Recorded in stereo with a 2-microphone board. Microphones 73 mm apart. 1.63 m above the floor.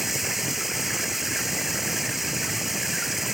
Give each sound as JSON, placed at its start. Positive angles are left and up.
{"t": 0.0, "sound": "running water", "side_deg": 0}